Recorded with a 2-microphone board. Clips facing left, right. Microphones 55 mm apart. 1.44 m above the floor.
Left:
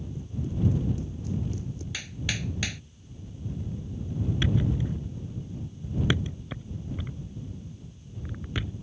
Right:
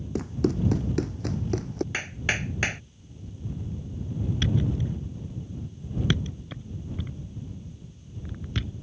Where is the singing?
I don't hear singing.